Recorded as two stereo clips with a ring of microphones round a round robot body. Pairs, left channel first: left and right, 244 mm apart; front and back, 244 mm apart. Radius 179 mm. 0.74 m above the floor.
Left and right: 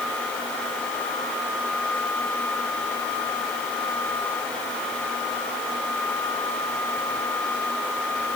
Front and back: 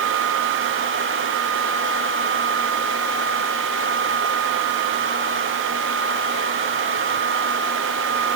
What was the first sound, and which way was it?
Only background noise.